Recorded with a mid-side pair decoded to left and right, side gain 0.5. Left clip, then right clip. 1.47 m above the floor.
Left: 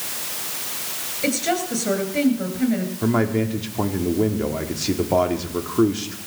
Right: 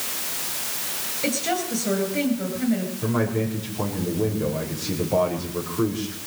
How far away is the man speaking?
About 4.5 m.